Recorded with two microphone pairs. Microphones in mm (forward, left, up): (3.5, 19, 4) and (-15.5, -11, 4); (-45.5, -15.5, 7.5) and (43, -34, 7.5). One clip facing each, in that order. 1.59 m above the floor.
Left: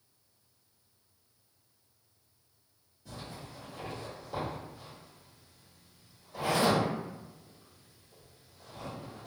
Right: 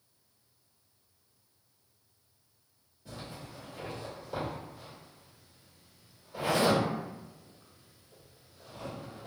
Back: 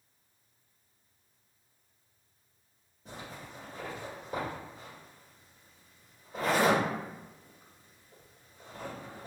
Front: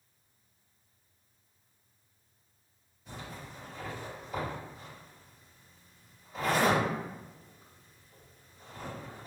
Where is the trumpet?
No trumpet in this recording.